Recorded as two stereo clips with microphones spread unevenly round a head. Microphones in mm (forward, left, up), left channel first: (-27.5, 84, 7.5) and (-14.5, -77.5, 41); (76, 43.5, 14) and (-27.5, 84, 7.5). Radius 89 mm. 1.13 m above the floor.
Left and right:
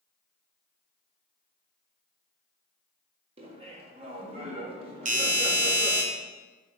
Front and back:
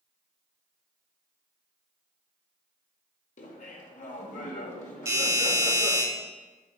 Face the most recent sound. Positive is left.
turn(degrees=-130)